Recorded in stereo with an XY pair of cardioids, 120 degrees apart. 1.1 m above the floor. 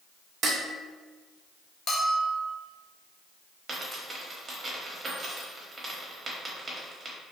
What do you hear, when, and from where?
0.4 s dishes clattering: 55° right, 0.6 m
1.9 s a bell: 45° left, 0.8 m
3.7 s a dropped coin: 25° right, 1.0 m